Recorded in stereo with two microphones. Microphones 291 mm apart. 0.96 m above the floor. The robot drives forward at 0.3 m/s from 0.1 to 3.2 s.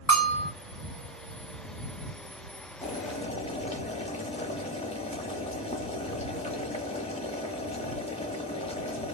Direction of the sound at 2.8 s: 20° left (ahead or behind).